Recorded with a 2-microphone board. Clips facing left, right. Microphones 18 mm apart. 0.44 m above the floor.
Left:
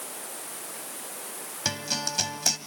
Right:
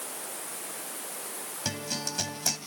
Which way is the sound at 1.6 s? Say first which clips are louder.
Left 4 dB; 25° left (ahead or behind).